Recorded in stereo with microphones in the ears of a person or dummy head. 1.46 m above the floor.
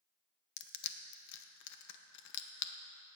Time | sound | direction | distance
0.6 | crushing | 65° left (ahead or behind) | 1.0 m